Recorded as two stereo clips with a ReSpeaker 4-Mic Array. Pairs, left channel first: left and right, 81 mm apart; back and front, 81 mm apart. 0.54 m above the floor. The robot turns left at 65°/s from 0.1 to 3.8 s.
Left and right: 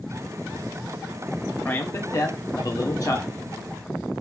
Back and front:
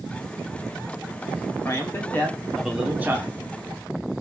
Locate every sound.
1.6 s a man speaking: 155° left, 0.9 m; by 3.3 s 45° left, 0.9 m